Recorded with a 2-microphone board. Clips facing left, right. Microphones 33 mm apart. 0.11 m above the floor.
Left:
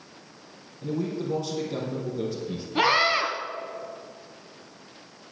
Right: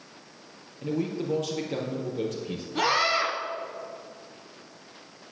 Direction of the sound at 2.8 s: 15° left (ahead or behind).